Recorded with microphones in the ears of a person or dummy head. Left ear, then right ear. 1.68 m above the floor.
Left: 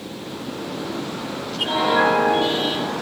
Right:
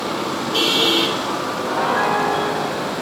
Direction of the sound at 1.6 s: 50° right (ahead or behind).